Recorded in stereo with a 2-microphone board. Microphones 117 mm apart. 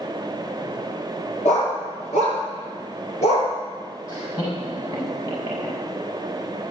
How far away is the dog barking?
About 5.5 m.